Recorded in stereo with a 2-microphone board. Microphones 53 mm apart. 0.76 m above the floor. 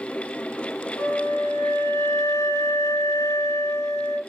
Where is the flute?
80° left, 3 m.